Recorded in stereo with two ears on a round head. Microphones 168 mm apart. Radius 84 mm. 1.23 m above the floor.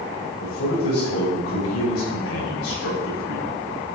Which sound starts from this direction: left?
A man speaking, at 0.4 s.